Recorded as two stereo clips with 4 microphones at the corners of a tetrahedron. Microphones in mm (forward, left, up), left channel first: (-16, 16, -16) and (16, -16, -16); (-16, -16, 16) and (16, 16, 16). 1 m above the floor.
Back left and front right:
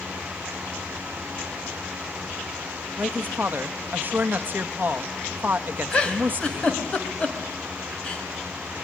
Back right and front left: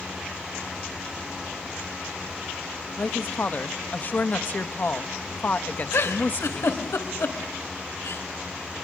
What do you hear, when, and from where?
3.0 s a woman speaking: 90° right, 1.2 m
5.9 s a giggle: 155° right, 3 m